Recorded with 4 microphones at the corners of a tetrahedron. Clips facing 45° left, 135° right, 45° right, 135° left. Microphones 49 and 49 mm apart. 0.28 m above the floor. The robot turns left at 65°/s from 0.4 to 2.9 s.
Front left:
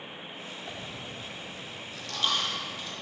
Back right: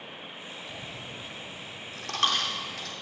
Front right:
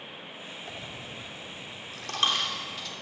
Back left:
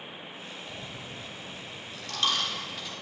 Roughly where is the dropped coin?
Ahead.